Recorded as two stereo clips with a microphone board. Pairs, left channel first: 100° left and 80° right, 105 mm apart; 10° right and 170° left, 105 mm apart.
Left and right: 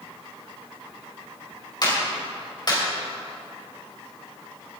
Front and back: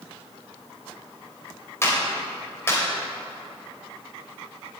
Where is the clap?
55° left, 3 m.